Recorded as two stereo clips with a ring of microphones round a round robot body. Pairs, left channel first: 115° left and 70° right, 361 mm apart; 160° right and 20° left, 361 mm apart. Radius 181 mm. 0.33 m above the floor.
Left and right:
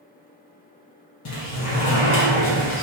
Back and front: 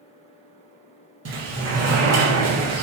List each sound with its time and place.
1.2 s a sliding door: 80° left, 1.5 m